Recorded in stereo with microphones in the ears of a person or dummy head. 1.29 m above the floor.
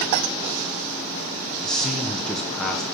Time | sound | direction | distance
1.6 | a man speaking | centre (ahead or behind) | 1.0 m